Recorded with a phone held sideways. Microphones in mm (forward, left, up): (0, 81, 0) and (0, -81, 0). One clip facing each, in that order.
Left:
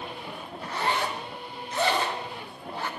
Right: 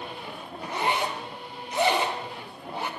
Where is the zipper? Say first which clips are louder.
Right 1 dB; 15° right (ahead or behind), 0.6 m.